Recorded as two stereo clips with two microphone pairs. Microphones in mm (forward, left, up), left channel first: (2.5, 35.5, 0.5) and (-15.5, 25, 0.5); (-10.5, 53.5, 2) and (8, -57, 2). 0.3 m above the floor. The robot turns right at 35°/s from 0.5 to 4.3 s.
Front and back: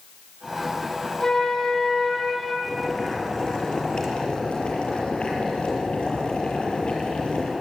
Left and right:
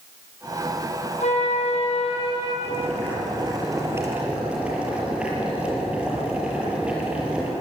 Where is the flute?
95° left, 6.5 m; by 2.5 s 140° left, 6.5 m.